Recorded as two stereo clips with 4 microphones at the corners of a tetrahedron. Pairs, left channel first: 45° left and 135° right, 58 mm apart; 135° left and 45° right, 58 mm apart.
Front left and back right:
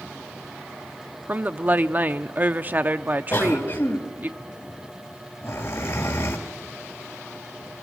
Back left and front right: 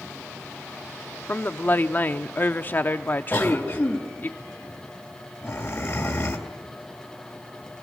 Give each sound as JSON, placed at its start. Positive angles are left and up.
{"t": 1.3, "sound": "a woman speaking", "azimuth_deg": 180, "distance_m": 0.8}
{"t": 3.3, "sound": "a cough", "azimuth_deg": 70, "distance_m": 3.0}